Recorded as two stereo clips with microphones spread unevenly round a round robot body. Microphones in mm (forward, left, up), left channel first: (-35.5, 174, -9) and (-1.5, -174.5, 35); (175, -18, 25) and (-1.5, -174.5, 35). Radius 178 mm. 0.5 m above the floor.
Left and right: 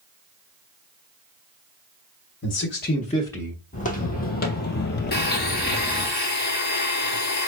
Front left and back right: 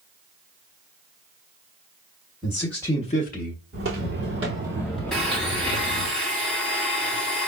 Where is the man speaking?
135° left, 1.1 m; by 3.6 s 10° left, 1.1 m.